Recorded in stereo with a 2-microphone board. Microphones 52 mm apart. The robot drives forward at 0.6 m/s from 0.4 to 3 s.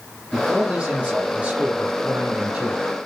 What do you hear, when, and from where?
0.3 s a man speaking: 25° right (ahead or behind), 3 m; by 2.9 s 30° right (ahead or behind), 2 m